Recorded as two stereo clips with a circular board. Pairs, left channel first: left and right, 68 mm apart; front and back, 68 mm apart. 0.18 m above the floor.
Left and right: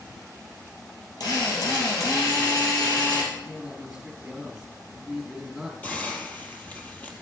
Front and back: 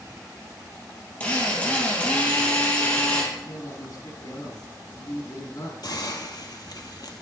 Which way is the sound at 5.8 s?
25° left.